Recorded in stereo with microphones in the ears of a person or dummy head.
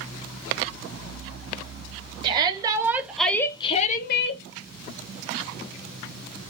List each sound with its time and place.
2.2 s a shout: 30° right (ahead or behind), 0.9 m; by 4.4 s 60° left (ahead or behind), 0.6 m